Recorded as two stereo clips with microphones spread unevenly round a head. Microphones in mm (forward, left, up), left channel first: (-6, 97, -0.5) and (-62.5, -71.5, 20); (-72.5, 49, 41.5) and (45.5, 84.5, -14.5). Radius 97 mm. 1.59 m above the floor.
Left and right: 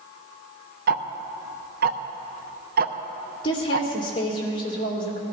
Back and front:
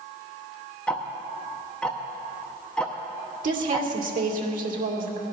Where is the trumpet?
No trumpet in this recording.